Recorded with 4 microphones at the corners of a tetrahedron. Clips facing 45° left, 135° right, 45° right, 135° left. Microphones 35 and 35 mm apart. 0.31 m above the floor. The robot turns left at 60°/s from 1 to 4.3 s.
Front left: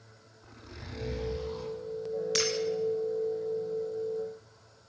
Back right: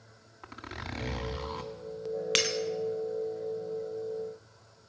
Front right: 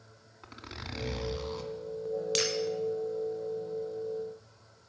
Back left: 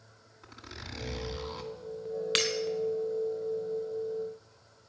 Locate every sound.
0.4 s a zipper: 115° right, 2 m; by 1.7 s 155° right, 2 m
2.4 s breaking glass: 170° right, 1.8 m; by 2.5 s straight behind, 1.8 m